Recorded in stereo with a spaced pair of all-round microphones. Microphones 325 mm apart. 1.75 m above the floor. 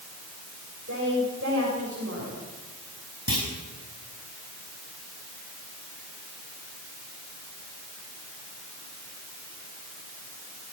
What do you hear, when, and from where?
0.8 s a woman speaking: 50° right (ahead or behind), 9.5 m
3.3 s a clunk: 75° left (ahead or behind), 5.5 m